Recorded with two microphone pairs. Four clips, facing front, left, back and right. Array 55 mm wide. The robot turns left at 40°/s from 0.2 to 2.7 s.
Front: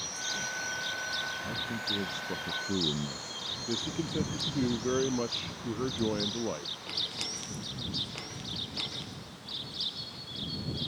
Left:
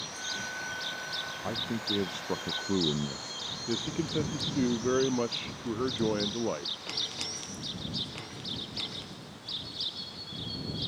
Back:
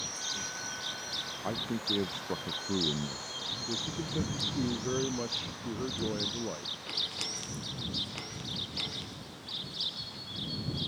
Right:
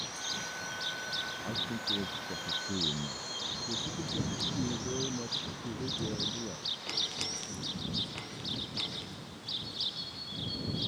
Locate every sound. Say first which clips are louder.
1.4 s a man speaking: left 6 dB, back 1 dB; 140° left; by 3.4 s 90° left
3.7 s a man speaking: left 8 dB, front 4 dB; 75° left